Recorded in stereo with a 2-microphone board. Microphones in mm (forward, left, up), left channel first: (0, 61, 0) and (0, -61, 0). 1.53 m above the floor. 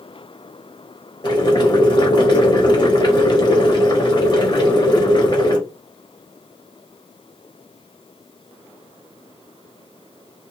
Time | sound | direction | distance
1.2 | boiling | 40° left (ahead or behind) | 0.9 m